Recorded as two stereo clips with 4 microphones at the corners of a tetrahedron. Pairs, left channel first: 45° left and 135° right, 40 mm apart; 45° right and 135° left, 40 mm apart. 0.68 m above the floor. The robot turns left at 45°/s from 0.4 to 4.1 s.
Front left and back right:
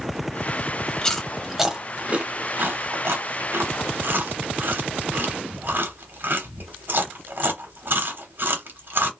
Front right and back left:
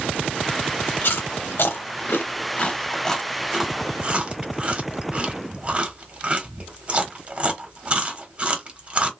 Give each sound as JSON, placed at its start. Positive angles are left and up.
{"t": 1.0, "sound": "chewing", "azimuth_deg": -30, "distance_m": 0.8}